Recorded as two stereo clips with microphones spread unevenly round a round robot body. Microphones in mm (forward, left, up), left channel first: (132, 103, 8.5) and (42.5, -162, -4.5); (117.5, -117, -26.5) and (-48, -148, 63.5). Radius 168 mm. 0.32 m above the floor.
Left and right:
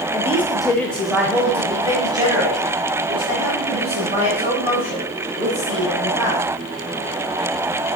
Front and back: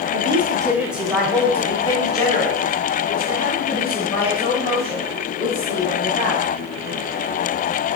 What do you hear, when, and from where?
0.1 s a woman speaking: 110° left, 0.9 m; by 6.4 s 40° right, 5 m